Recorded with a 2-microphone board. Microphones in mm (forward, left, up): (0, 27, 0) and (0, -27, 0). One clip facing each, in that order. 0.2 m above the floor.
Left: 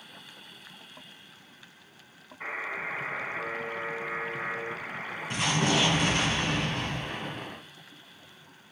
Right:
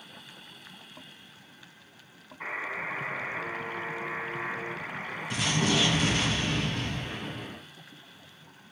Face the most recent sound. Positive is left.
turn(degrees=35)  # may be behind; listen again after turning